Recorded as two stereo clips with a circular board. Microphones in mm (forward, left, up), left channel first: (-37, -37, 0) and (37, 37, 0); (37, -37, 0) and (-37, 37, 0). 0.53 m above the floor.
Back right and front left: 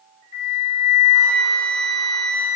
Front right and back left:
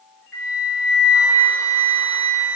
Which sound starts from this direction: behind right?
A flute, at 0.3 s.